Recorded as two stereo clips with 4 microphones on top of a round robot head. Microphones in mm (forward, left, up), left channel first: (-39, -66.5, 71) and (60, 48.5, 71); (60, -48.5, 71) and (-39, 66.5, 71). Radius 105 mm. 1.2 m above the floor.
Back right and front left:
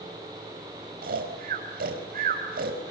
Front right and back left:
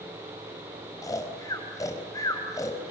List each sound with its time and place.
1.0 s snoring: 20° left, 4.5 m